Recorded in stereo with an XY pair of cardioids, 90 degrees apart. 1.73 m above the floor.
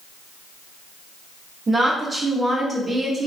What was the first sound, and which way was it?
A woman speaking, 40° right.